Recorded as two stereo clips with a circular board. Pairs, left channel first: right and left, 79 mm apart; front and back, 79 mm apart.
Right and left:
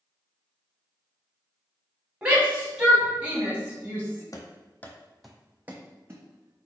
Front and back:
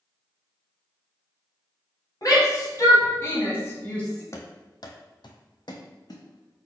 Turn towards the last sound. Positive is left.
turn(degrees=40)